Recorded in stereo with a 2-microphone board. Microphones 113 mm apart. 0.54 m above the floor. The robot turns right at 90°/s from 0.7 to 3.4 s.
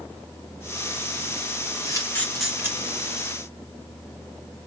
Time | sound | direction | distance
1.9 | a camera shutter | 35° left (ahead or behind) | 1.7 m